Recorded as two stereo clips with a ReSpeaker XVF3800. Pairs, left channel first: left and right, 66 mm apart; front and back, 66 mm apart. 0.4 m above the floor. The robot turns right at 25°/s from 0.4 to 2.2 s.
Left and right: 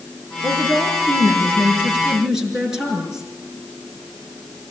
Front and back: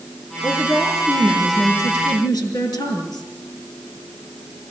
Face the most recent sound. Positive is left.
turn(degrees=-10)